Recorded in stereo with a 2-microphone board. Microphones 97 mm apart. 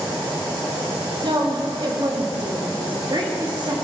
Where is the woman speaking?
50° right (ahead or behind), 1.6 m.